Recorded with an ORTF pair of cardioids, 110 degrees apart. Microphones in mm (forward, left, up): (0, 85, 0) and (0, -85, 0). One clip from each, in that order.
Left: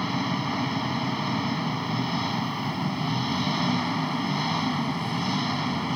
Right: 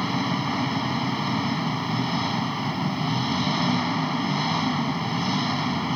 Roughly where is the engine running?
Ahead.